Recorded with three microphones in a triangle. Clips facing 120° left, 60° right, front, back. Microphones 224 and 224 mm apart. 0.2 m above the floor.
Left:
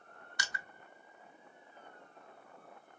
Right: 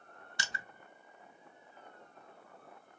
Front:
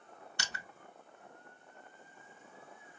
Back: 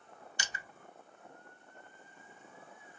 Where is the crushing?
Straight ahead, 0.8 m.